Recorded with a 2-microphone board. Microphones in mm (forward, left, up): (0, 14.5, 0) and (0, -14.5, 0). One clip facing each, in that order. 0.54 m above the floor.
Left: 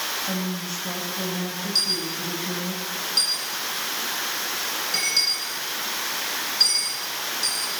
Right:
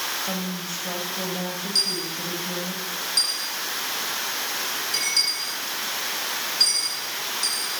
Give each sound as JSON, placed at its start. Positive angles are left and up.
{"t": 0.3, "sound": "a woman speaking", "side_deg": -20, "distance_m": 3.5}
{"t": 1.8, "sound": "a dropped coin", "side_deg": 10, "distance_m": 8.5}